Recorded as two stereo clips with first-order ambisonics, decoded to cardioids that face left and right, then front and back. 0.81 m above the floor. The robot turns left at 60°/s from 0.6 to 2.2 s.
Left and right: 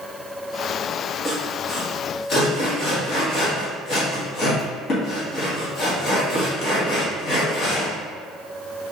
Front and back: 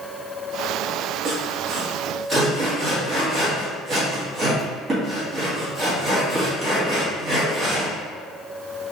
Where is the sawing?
Straight behind, 1.2 m; by 8.0 s 120° left, 1.2 m.